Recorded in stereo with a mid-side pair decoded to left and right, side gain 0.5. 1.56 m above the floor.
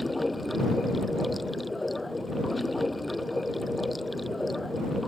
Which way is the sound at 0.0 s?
10° left.